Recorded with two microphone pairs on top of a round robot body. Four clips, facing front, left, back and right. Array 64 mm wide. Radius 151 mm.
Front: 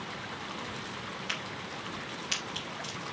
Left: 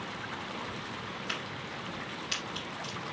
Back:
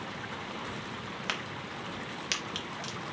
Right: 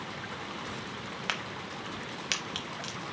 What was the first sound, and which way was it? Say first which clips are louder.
A crack: right 2 dB, back 1 dB; 120° right.